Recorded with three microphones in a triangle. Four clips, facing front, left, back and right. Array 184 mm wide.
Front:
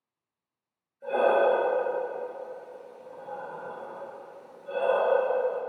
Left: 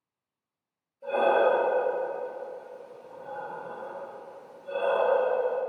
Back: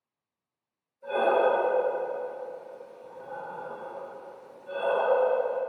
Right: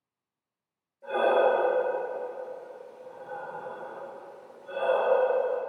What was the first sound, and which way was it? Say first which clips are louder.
Breathing: even, front 1 dB; 10° left.